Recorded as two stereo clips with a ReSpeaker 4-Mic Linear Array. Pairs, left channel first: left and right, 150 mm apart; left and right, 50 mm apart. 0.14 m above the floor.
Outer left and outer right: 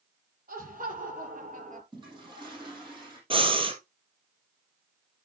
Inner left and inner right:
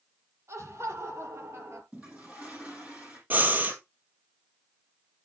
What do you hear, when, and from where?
0.5 s laughter: 60° right (ahead or behind), 5 m; by 1.8 s 55° right (ahead or behind), 3.5 m
1.9 s a toilet flushing: 25° right (ahead or behind), 5.5 m
3.3 s breathing: 35° right (ahead or behind), 2 m